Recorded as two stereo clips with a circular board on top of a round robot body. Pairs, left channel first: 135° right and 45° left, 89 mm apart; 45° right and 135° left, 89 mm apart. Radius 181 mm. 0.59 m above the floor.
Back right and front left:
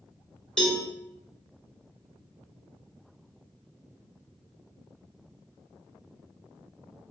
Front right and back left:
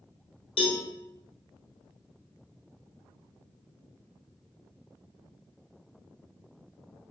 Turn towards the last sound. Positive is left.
turn(degrees=-55)